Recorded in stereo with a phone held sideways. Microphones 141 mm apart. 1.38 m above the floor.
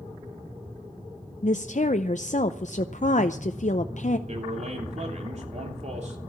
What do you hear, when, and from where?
1.4 s a woman speaking: 60° left (ahead or behind), 0.6 m
4.3 s a man speaking: 55° right (ahead or behind), 3 m